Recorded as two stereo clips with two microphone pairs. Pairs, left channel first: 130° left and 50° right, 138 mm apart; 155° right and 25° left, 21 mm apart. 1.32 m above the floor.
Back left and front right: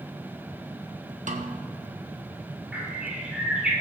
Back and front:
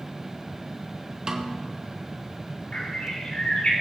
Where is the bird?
130° right, 3.5 m.